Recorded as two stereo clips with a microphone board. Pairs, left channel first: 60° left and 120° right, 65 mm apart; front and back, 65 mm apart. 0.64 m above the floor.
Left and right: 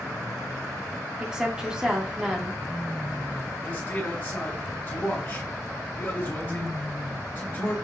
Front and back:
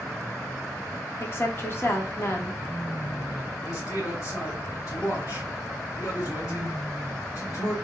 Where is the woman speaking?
45° right, 1.0 m.